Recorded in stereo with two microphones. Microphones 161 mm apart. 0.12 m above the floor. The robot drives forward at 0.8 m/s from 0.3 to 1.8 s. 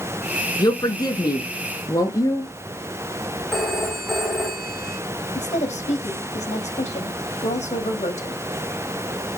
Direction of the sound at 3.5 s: Centre (ahead or behind).